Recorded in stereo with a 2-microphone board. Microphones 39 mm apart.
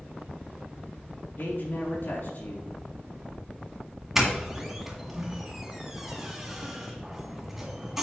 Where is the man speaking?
55° left (ahead or behind), 3.5 m.